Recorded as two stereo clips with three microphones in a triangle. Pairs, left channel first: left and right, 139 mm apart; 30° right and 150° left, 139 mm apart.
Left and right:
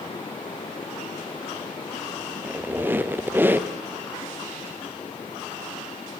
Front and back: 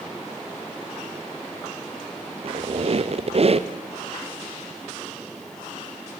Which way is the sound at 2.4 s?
165° right.